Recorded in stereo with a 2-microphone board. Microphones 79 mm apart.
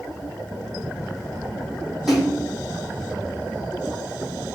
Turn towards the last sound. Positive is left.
turn(degrees=-5)  # may be behind; listen again after turning